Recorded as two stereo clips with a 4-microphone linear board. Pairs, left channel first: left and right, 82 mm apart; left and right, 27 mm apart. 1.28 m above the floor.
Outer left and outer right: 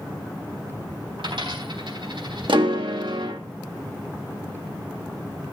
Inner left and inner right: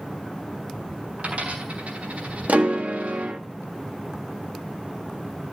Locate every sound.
1.2 s a dropped coin: 80° right, 4 m
2.5 s a piano: 85° right, 1.7 m